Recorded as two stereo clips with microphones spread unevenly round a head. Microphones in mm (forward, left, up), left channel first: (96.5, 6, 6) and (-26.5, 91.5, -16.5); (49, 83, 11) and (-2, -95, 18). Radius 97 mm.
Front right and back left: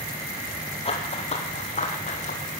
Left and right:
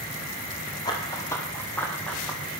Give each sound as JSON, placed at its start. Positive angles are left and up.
{"t": 0.8, "sound": "running footsteps", "azimuth_deg": 5, "distance_m": 3.0}